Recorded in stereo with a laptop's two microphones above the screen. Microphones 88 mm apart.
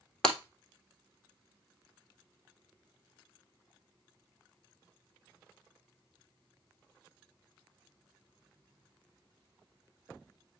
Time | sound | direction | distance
0.2 | breaking glass | 10° left (ahead or behind) | 1.9 m